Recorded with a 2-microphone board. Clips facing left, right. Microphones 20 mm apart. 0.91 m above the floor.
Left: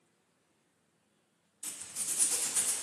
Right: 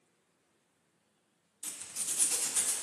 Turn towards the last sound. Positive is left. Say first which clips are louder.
# even
turn(degrees=-30)  # may be behind; listen again after turning